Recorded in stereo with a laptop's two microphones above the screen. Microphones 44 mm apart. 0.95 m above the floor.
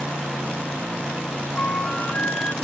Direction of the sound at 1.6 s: 30° left (ahead or behind).